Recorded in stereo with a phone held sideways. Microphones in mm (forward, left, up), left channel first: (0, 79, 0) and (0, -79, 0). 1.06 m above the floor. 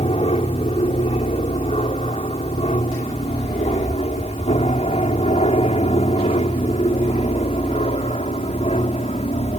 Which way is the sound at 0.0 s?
40° left (ahead or behind).